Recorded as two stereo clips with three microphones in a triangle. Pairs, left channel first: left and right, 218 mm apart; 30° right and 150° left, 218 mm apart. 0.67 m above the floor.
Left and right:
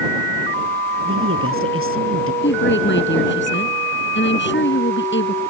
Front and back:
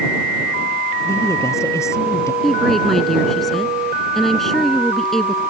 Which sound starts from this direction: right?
A woman speaking, at 1.1 s.